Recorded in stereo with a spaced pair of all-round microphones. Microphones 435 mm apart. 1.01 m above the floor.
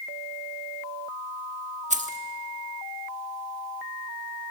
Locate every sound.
1.9 s keys jangling: 15° right (ahead or behind), 1.2 m